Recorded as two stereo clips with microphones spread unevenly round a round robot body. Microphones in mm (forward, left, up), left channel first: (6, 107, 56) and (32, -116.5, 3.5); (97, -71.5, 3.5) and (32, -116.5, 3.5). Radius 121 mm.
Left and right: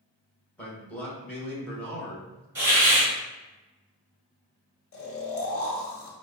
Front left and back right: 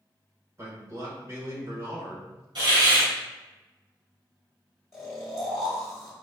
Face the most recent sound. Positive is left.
turn(degrees=85)